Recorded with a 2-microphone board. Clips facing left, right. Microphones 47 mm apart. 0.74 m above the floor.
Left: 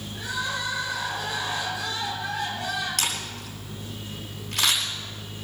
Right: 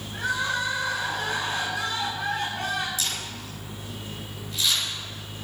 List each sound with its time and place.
0.1 s crying: 60° right (ahead or behind), 9 m
3.0 s a camera shutter: 65° left (ahead or behind), 5 m